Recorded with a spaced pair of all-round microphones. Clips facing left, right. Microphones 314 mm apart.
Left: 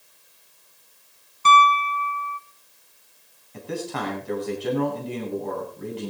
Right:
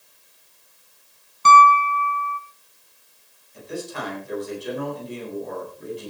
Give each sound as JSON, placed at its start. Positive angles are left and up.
{"t": 1.4, "sound": "a piano", "side_deg": -15, "distance_m": 3.0}
{"t": 3.5, "sound": "a man speaking", "side_deg": 70, "distance_m": 9.0}